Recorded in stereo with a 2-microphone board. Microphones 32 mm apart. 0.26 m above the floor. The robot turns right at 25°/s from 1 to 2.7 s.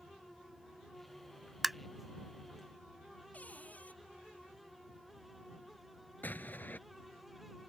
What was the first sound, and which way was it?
Tapping, centre (ahead or behind).